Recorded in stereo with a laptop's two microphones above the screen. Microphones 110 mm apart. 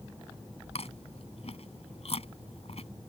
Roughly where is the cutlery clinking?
I don't hear cutlery clinking.